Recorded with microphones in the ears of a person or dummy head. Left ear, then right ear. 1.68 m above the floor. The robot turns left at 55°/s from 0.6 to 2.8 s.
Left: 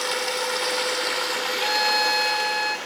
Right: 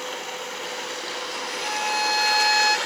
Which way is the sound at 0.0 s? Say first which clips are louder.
Left 6 dB; 85° left.